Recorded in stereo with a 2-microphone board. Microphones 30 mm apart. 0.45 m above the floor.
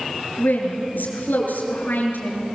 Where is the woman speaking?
80° left, 6.5 m.